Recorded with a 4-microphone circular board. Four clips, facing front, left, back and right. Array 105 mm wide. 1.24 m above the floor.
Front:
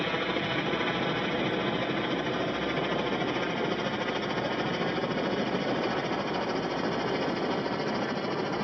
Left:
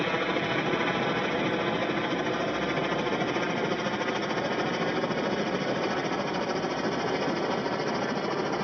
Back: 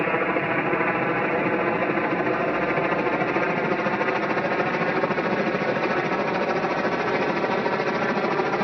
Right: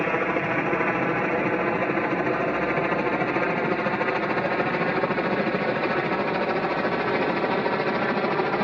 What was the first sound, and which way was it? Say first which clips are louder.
A helicopter: right 4 dB, back 7 dB; 155° right.